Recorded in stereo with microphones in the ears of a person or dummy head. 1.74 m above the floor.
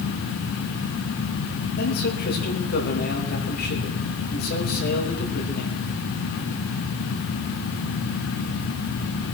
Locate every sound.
1.8 s a man speaking: 50° left (ahead or behind), 3.5 m